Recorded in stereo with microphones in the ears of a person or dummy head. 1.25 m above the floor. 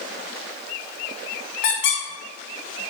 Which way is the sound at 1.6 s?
55° left (ahead or behind).